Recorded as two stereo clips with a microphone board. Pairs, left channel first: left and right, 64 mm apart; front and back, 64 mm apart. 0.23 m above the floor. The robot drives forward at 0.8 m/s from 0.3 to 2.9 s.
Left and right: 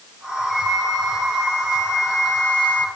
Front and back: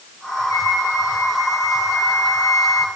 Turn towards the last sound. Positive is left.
turn(degrees=25)